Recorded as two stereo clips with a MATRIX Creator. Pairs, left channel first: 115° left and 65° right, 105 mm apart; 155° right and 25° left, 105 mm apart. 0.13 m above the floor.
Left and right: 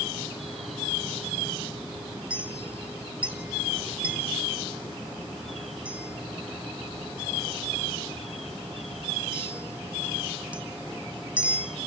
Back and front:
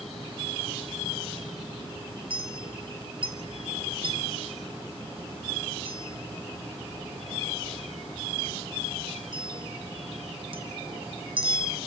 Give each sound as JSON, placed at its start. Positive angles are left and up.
{"t": 2.3, "sound": "a clink", "azimuth_deg": 5, "distance_m": 1.8}